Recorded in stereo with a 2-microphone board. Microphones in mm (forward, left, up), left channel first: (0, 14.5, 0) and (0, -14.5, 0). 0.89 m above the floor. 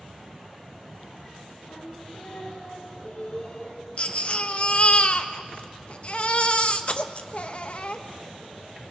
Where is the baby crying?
45° left (ahead or behind), 0.7 m.